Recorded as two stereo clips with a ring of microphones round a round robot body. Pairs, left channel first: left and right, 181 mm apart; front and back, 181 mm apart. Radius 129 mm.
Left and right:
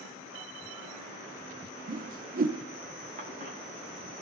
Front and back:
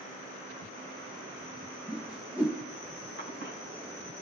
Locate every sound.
1.9 s a whoosh: 95° right, 1.0 m
3.2 s a cough: 50° right, 5.5 m